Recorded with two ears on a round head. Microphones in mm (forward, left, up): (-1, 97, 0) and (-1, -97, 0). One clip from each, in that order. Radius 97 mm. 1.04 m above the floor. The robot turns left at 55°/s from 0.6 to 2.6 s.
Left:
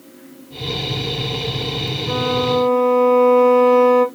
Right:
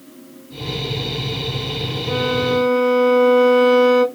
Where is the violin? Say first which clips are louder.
Even; centre (ahead or behind), 2.0 m; by 4.0 s 30° right (ahead or behind), 2.0 m.